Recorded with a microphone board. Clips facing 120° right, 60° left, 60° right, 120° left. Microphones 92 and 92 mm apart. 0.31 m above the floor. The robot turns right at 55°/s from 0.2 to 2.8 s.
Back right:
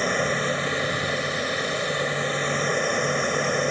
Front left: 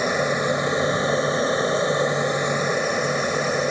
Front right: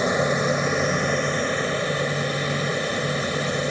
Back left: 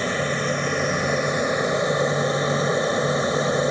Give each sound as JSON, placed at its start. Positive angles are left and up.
{"t": 0.0, "sound": "an aircraft", "azimuth_deg": -10}